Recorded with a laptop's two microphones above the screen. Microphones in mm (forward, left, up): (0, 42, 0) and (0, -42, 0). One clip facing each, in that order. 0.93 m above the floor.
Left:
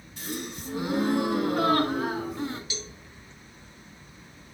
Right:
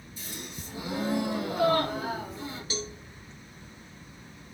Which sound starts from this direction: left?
A gasp, at 0.2 s.